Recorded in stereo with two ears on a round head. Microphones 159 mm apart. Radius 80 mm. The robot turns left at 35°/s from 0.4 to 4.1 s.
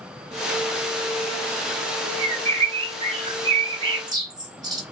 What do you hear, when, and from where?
2.2 s a bird: 65° right, 0.7 m; by 4.8 s 135° right, 0.7 m